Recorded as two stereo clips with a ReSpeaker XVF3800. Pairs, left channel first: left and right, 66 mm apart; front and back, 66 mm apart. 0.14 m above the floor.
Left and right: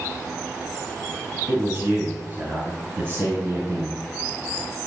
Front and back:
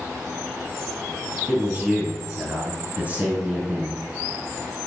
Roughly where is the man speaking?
Behind right.